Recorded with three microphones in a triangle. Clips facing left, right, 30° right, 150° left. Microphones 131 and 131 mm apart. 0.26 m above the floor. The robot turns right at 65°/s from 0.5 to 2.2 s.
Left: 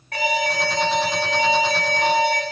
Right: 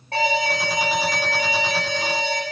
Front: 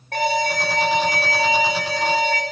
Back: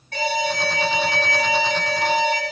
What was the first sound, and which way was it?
An alarm, 35° right.